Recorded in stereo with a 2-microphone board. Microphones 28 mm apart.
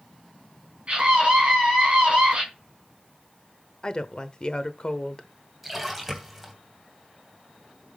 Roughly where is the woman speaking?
Left.